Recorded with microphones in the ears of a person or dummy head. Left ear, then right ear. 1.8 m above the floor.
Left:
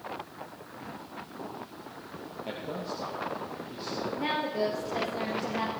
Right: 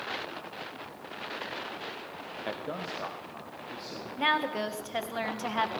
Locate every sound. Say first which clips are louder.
2.5 s a man speaking: even; 50° right (ahead or behind), 0.8 m; by 4.1 s 10° right (ahead or behind), 3 m
4.2 s a woman speaking: right 4 dB; 40° right (ahead or behind), 1.1 m